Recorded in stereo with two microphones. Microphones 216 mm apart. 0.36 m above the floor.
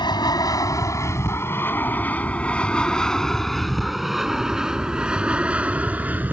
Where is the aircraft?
20° left (ahead or behind); by 6.3 s 10° right (ahead or behind).